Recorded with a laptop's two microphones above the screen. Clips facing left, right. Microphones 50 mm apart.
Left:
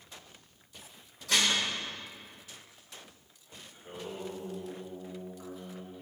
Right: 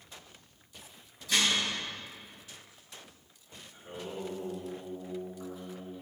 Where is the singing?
35° left (ahead or behind), 3 m.